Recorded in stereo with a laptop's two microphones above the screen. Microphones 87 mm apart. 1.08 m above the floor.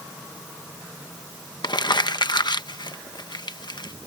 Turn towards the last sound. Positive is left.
turn(degrees=60)  # may be behind; listen again after turning